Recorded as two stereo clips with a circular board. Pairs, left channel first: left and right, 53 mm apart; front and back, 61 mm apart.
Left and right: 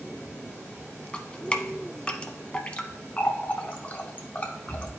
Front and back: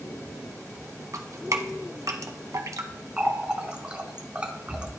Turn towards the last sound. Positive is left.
turn(degrees=130)